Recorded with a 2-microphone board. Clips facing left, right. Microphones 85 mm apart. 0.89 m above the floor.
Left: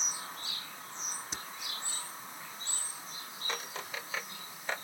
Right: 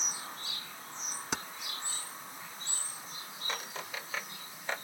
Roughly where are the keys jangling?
Right.